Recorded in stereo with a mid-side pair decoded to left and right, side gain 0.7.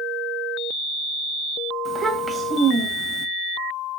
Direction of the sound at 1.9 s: 20° right.